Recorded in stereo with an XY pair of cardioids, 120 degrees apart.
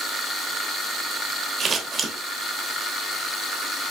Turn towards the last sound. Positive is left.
turn(degrees=-45)